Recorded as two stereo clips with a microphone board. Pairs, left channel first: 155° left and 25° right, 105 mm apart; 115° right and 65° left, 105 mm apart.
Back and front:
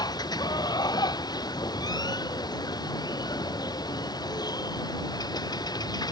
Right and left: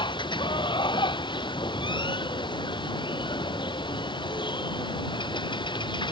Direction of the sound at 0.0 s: 155° right.